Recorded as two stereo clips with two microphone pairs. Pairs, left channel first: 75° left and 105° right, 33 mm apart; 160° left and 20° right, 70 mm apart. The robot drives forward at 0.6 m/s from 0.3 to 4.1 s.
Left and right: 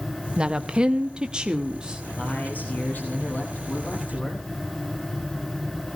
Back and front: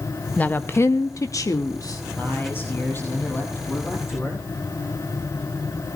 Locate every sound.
0.4 s a woman speaking: 150° right, 0.6 m; by 2.0 s 175° right, 1.4 m
2.2 s a man speaking: 100° left, 9 m; by 4.5 s 105° left, 9.5 m